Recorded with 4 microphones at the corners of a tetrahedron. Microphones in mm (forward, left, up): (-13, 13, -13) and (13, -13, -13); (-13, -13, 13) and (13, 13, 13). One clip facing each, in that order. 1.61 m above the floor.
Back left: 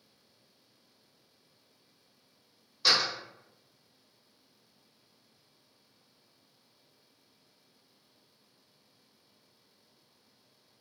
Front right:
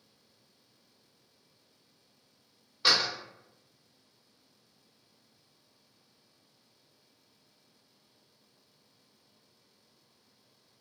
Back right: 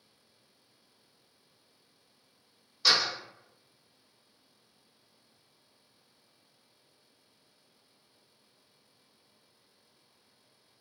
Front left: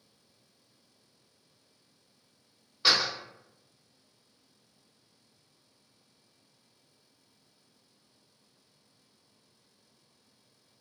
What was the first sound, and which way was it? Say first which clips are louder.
A door slam: even, even; 5° left.